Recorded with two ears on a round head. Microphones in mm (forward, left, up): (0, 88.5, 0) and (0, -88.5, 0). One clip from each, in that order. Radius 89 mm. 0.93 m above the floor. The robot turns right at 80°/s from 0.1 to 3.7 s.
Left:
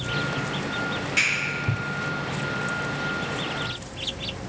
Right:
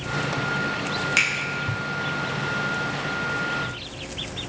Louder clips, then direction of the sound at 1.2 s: Right 1 dB; 50° right (ahead or behind).